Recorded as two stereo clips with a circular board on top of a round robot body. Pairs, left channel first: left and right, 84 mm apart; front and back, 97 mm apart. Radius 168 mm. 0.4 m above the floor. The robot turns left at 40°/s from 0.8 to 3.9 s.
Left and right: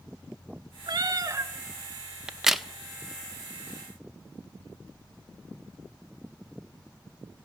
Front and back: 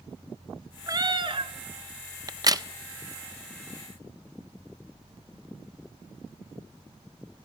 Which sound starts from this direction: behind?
A crack, at 2.3 s.